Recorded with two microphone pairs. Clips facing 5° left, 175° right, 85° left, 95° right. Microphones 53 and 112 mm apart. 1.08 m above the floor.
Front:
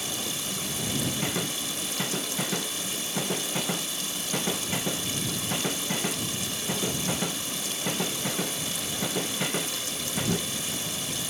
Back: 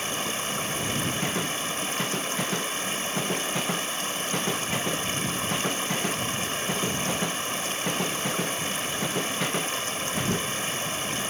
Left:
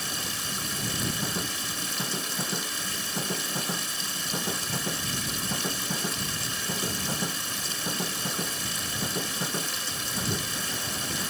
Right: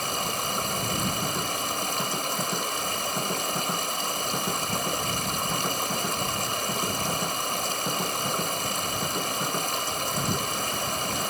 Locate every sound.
0.0 s running water: 125° right